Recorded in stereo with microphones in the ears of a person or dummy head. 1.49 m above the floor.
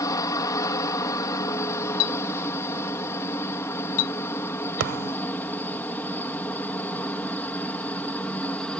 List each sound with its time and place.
0.0 s a helicopter: 20° left (ahead or behind); by 8.8 s 10° left (ahead or behind)
2.0 s a clink: 80° left
4.8 s a thud: 70° right (ahead or behind)